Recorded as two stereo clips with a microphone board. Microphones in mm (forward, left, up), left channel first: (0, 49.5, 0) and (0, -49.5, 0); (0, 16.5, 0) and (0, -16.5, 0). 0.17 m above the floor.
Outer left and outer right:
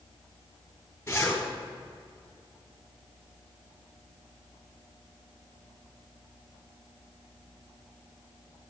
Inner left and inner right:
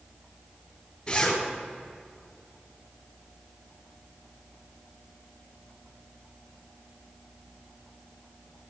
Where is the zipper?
25° left (ahead or behind), 2.5 m.